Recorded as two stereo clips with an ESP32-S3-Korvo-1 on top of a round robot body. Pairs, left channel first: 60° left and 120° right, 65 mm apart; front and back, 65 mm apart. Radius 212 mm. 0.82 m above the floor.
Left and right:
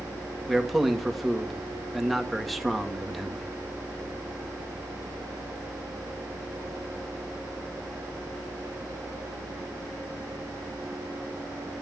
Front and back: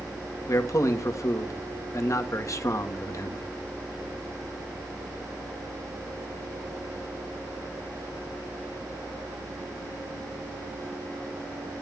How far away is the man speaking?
About 2 m.